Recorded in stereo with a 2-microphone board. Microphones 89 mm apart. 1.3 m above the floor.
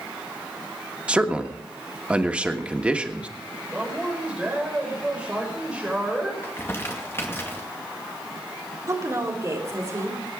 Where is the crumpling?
25° left (ahead or behind), 2 m.